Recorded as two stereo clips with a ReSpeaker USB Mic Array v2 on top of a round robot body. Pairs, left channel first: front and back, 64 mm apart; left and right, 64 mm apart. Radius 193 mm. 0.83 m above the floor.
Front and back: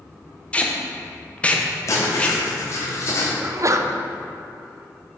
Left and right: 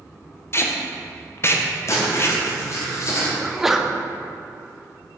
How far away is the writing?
About 1.1 m.